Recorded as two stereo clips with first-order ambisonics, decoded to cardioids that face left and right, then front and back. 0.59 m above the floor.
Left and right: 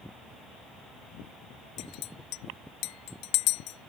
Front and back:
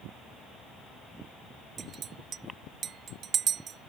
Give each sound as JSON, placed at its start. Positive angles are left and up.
{"t": 1.8, "sound": "a clink", "azimuth_deg": 115}